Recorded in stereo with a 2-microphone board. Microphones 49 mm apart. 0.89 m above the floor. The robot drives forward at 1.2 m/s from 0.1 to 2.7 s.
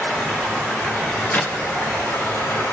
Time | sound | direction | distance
0.0 | running water | 30° left (ahead or behind) | 6 m
1.3 | a clap | 35° left (ahead or behind) | 1.1 m